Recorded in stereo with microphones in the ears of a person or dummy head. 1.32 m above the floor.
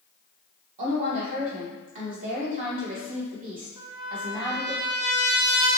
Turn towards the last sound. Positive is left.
turn(degrees=-10)  # may be behind; listen again after turning